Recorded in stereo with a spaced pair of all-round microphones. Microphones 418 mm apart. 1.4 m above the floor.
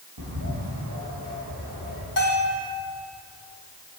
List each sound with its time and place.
0.2 s a bird: 70° right (ahead or behind), 1.6 m
2.2 s a bell: 50° left (ahead or behind), 1.7 m